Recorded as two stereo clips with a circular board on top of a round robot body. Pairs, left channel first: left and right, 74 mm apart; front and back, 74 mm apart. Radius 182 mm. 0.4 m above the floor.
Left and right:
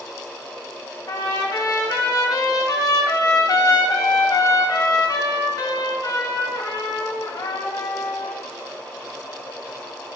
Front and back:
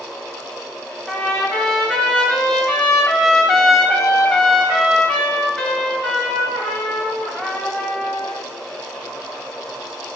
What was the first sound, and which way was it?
A trumpet, 85° left.